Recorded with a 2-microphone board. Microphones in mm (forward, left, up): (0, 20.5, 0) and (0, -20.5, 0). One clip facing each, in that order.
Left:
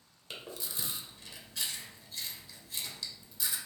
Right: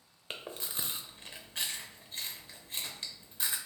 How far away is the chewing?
About 0.5 m.